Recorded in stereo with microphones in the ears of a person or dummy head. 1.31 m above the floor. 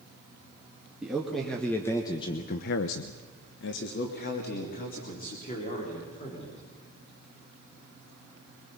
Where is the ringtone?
No ringtone in this recording.